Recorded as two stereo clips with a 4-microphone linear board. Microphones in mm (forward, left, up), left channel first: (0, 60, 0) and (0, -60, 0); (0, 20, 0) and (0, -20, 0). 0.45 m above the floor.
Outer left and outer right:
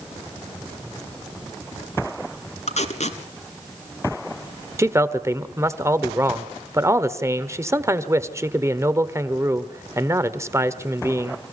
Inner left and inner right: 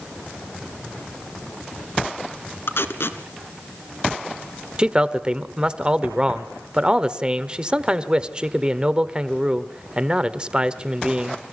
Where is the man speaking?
25° right (ahead or behind), 1.2 m.